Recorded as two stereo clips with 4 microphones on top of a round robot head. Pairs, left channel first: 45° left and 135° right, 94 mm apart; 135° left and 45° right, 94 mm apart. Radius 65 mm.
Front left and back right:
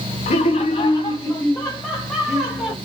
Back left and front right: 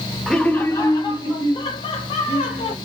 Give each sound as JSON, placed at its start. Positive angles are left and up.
{"t": 0.3, "sound": "laughter", "azimuth_deg": 50, "distance_m": 0.6}